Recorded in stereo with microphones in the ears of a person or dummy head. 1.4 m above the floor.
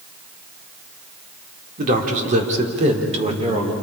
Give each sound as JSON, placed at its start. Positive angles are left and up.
{"t": 1.8, "sound": "a man speaking", "side_deg": -45, "distance_m": 3.5}